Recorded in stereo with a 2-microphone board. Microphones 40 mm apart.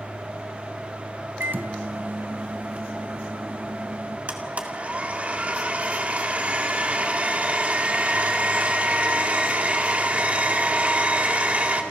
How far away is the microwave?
About 0.8 m.